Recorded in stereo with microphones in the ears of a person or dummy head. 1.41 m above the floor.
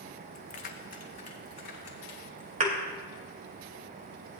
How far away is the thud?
About 2 m.